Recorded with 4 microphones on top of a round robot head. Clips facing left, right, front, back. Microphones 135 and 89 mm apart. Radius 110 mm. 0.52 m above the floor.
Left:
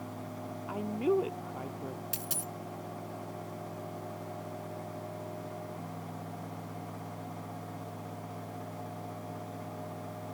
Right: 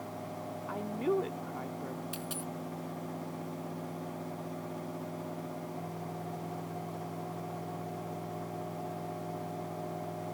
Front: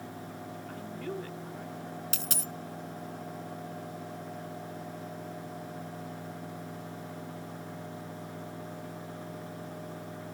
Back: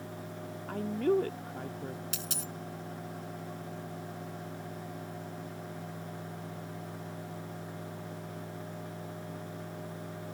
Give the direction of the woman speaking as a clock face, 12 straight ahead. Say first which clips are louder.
Left 2 dB, back 12 dB; 7 o'clock.